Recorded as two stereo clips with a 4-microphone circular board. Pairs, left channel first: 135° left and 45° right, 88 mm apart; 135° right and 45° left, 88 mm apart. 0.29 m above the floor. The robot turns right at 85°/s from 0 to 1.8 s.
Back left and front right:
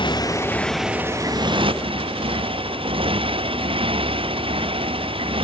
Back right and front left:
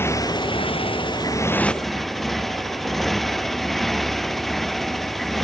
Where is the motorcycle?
160° left; by 5.5 s 50° right.